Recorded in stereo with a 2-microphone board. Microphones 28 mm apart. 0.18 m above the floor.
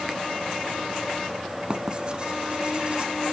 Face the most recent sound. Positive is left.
turn(degrees=-35)  # may be behind; listen again after turning